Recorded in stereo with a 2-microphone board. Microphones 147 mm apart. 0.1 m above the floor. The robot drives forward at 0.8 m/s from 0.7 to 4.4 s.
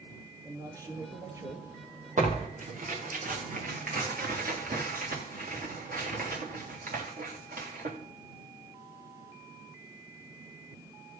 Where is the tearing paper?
60° right (ahead or behind), 4 m; by 8.0 s 85° right, 3.5 m.